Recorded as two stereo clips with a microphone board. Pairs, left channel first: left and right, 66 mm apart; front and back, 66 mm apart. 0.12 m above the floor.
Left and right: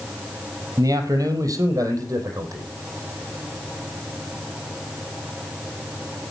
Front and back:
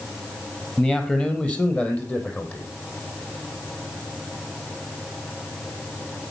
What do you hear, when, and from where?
0.8 s a man speaking: 75° right, 3 m; by 2.7 s 60° right, 4.5 m